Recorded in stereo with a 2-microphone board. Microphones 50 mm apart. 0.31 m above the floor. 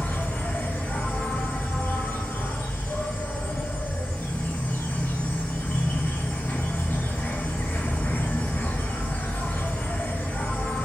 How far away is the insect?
About 1.4 m.